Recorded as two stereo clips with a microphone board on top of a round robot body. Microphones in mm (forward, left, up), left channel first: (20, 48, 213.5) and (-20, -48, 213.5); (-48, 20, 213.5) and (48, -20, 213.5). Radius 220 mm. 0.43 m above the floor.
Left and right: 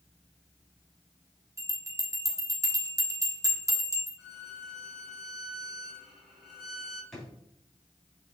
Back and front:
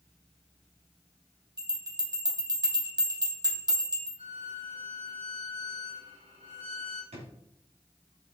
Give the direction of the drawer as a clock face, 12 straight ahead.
1 o'clock.